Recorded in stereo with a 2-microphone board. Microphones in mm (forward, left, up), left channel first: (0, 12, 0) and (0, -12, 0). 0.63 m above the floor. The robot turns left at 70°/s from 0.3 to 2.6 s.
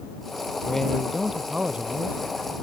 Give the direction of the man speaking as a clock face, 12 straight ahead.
11 o'clock.